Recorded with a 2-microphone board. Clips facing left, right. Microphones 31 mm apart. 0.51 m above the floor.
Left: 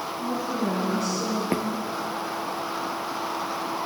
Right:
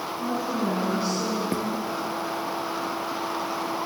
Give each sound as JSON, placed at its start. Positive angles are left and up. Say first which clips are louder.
{"t": 0.2, "sound": "a woman speaking", "louder": "right 1 dB", "side_deg": -25, "distance_m": 5.5}
{"t": 1.5, "sound": "footsteps", "louder": "left 2 dB", "side_deg": 30, "distance_m": 2.5}